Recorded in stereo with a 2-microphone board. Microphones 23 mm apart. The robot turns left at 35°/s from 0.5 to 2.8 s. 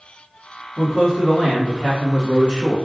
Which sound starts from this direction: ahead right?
A man speaking, at 0.8 s.